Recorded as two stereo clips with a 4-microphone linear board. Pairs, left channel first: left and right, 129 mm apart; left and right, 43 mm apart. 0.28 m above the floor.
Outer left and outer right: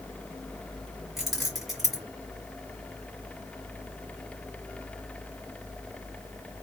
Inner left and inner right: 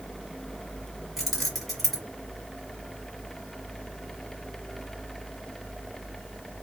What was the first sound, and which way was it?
Keys jangling, centre (ahead or behind).